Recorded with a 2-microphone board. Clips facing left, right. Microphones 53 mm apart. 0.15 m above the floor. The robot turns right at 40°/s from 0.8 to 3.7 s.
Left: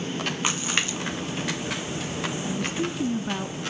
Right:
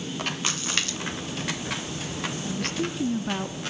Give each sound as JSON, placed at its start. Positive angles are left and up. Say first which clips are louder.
{"t": 0.4, "sound": "a splash", "louder": "left 3 dB", "side_deg": 25, "distance_m": 0.7}
{"t": 2.5, "sound": "a woman speaking", "louder": "even", "azimuth_deg": 145, "distance_m": 1.2}